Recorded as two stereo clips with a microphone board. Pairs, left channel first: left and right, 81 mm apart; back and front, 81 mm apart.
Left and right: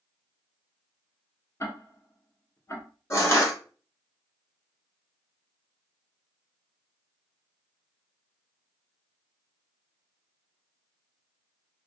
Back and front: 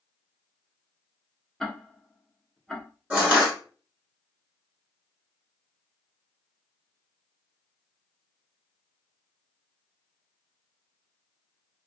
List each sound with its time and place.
1.6 s ticking: 100° left, 0.7 m
3.1 s crushing: 65° left, 1.4 m